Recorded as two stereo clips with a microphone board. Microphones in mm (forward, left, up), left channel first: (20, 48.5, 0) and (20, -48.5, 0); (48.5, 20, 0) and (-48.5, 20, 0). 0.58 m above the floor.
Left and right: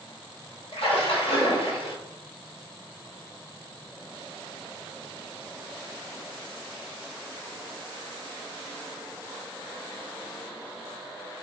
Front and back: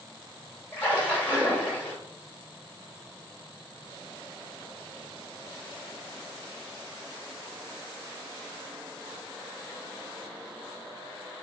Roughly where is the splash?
Left.